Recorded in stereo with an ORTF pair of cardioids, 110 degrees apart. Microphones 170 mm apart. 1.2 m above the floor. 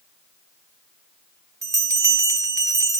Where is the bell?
20° right, 1.2 m.